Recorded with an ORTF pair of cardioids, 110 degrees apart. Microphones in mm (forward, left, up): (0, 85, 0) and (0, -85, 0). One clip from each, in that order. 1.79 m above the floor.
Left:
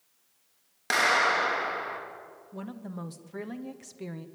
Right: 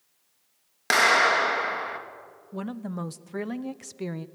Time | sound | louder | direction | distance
0.9 | a clap | right 4 dB | 35° right | 2.5 m
2.5 | a woman speaking | right 7 dB | 30° right | 1.0 m